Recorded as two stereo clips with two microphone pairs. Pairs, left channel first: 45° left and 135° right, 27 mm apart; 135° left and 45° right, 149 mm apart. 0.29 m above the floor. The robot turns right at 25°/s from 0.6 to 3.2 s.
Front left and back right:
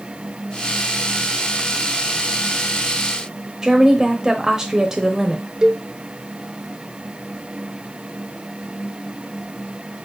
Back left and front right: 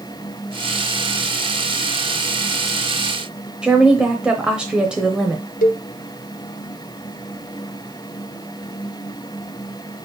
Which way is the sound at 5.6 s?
160° left.